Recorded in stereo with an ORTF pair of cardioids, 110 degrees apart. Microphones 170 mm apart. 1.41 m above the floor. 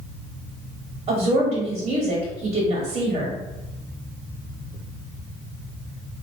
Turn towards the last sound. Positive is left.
turn(degrees=-45)